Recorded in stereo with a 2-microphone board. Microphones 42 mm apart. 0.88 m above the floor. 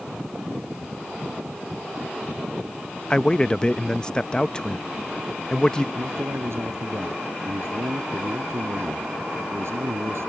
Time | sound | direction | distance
3.1 | a man speaking | 20° left (ahead or behind) | ?
6.0 | a man speaking | 80° right | ?